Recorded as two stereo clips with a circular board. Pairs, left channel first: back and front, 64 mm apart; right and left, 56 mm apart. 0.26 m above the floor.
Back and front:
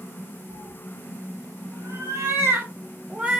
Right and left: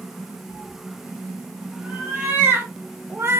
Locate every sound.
0.5 s a cat meowing: 20° left, 2.5 m; by 3.4 s 70° left, 1.1 m